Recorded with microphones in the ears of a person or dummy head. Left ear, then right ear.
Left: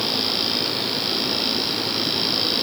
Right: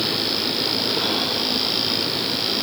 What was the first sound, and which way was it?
Only background noise.